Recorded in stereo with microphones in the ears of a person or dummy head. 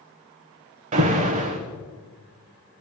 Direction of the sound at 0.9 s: 40° right (ahead or behind).